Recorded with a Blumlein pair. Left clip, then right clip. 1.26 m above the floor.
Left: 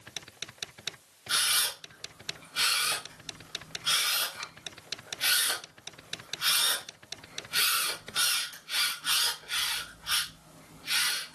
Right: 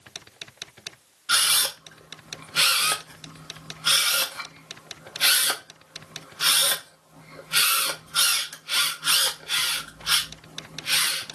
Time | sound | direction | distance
1.3 | a camera shutter | 60° right | 0.6 m